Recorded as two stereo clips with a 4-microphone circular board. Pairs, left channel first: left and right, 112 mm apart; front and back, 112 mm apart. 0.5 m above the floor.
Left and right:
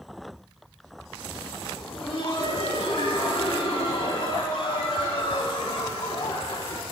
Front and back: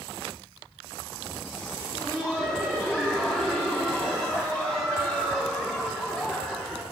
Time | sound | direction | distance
1.8 | laughter | 90° left | 1.3 m